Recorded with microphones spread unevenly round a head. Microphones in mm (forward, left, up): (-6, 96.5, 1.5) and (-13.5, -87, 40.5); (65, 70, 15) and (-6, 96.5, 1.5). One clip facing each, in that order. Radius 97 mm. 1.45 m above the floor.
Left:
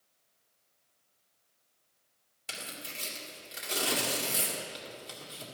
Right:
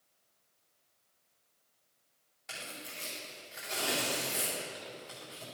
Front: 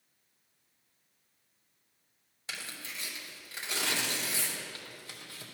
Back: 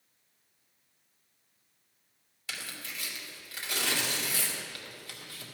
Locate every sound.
2.5 s tearing paper: 40° left, 2.5 m